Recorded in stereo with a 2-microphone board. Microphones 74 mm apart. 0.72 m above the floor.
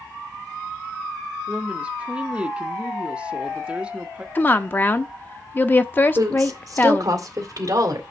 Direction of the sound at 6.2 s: 50° right (ahead or behind).